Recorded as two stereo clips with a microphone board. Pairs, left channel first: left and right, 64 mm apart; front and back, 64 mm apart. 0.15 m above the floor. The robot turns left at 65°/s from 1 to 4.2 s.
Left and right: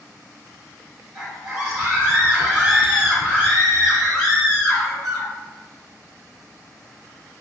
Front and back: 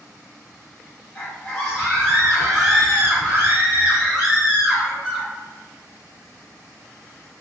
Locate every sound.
1.1 s a scream: 5° right, 1.6 m; by 5.3 s 160° left, 1.6 m